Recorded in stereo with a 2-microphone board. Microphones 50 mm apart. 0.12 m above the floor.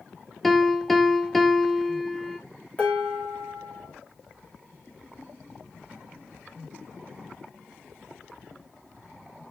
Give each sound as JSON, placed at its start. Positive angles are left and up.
{"t": 0.4, "sound": "a piano", "side_deg": 5, "distance_m": 0.7}
{"t": 2.8, "sound": "dishes clattering", "side_deg": 25, "distance_m": 6.0}